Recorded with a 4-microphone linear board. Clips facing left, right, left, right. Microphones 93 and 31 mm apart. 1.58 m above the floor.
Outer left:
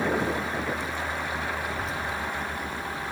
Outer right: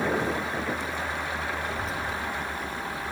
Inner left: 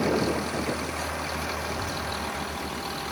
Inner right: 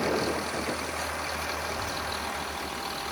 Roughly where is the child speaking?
Centre.